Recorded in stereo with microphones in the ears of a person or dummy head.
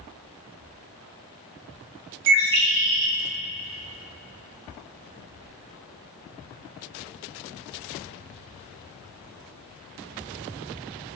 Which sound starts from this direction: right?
A bird, at 2.3 s.